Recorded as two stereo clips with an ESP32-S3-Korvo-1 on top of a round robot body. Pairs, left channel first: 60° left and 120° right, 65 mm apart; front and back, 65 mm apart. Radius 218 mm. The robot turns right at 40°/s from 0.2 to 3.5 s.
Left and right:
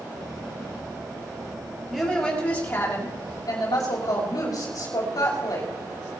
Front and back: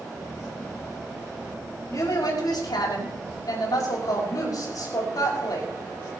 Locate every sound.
1.9 s a woman speaking: 30° right, 5.5 m; by 5.7 s 35° left, 5.5 m